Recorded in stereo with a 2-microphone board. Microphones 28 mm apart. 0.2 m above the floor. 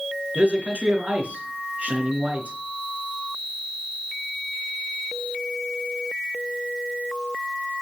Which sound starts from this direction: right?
A man speaking, at 0.3 s.